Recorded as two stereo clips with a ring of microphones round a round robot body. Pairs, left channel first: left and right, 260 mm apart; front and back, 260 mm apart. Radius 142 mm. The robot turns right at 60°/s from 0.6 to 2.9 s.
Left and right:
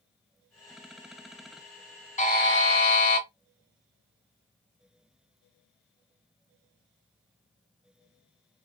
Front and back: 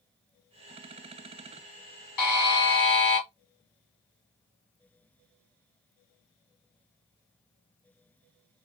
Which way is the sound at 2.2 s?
25° left.